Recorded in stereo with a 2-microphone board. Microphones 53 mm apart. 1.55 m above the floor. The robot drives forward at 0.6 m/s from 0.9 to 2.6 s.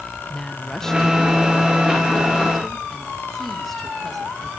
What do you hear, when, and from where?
0.3 s a woman speaking: 10° left (ahead or behind), 1.4 m; by 4.5 s 5° left (ahead or behind), 2.5 m